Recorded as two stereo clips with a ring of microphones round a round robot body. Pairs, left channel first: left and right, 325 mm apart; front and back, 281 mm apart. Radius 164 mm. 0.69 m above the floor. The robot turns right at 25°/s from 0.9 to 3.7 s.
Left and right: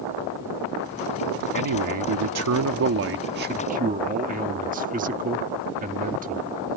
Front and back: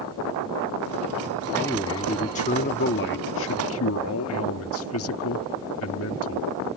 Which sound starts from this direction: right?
A man speaking, at 1.5 s.